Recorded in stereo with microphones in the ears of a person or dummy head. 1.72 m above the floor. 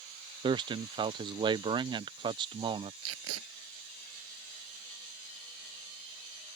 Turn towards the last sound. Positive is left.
turn(degrees=-80)